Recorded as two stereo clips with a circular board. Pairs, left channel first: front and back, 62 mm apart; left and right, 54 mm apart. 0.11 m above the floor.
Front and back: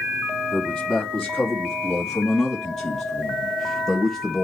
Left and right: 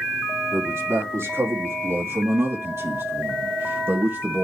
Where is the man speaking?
85° right, 3.5 m.